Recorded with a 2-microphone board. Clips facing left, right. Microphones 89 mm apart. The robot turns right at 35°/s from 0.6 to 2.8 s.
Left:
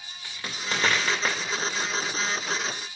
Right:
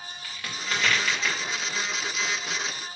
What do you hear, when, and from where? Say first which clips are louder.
0.2 s a crack: left 1 dB; 25° left (ahead or behind), 2 m; by 1.4 s 50° left (ahead or behind), 2 m